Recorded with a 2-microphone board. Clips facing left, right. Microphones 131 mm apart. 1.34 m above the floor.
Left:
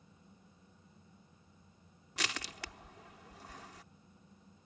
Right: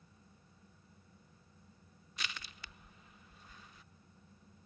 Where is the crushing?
65° left (ahead or behind).